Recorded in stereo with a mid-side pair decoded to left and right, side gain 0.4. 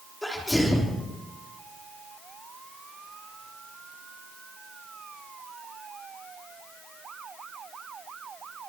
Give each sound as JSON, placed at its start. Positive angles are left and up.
{"t": 0.2, "sound": "a sneeze", "azimuth_deg": 5, "distance_m": 4.5}